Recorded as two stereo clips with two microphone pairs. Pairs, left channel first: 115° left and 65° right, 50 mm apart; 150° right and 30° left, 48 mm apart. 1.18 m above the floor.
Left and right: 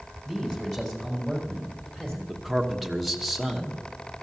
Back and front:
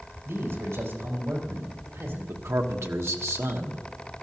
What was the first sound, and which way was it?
A man speaking, 30° left.